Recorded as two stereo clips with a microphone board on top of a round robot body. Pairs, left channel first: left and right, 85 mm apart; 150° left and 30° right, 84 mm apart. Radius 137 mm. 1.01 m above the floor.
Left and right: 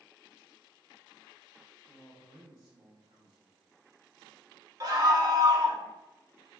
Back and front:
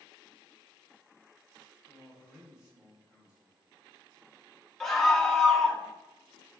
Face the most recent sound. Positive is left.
turn(degrees=-125)